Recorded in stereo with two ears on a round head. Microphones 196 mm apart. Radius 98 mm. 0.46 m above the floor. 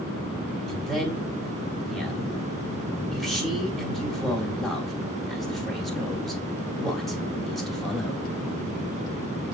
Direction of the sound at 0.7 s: Centre (ahead or behind).